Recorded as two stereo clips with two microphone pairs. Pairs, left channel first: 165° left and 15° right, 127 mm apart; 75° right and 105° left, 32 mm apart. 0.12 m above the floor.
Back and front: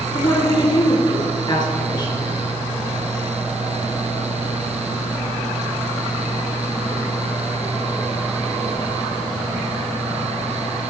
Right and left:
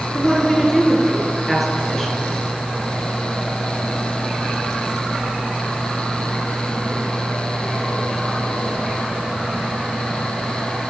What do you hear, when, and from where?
0.1 s a woman speaking: 160° right, 2 m